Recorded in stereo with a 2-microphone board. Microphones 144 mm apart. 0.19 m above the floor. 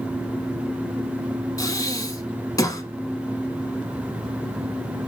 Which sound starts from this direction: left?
Breathing, at 1.6 s.